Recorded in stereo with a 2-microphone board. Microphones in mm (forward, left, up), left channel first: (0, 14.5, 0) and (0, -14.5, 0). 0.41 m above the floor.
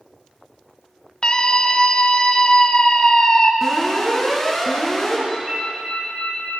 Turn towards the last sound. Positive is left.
turn(degrees=-35)  # may be behind; listen again after turning